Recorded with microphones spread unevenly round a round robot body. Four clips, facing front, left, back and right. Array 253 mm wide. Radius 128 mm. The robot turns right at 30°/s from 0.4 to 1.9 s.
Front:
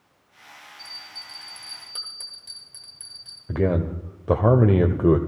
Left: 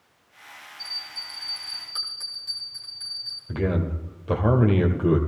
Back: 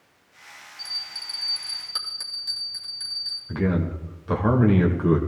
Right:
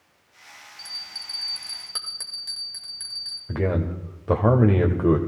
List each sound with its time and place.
0.8 s a bell: 100° right, 2 m; by 3.4 s 70° right, 2 m
3.5 s a man speaking: 25° right, 1.5 m